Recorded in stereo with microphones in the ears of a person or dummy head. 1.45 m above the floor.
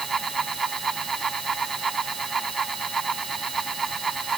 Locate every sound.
0.0 s a fan: centre (ahead or behind)